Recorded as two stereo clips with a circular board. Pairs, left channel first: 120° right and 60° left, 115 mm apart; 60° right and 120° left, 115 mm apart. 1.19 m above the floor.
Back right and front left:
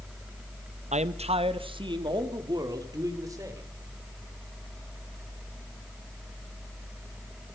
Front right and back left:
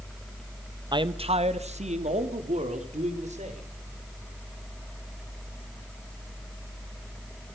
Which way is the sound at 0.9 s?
70° left.